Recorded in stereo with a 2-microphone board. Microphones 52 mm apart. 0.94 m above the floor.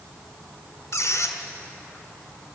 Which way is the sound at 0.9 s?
85° left.